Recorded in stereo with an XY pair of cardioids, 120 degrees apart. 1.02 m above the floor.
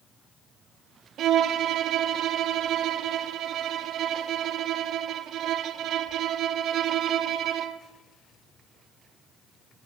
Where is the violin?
60° right, 0.9 m.